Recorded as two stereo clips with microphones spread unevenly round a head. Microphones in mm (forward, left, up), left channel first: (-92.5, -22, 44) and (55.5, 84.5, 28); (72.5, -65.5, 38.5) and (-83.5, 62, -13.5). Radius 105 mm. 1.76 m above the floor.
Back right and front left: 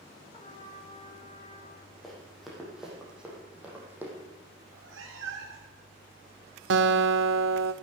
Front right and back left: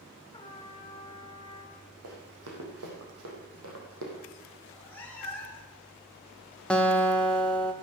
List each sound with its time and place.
0.3 s a trumpet: 90° right, 1.6 m
2.0 s running footsteps: 130° left, 5 m; by 4.1 s 115° left, 4.5 m
4.6 s a cat meowing: 35° left, 2.5 m
6.7 s a guitar: 40° left, 1.1 m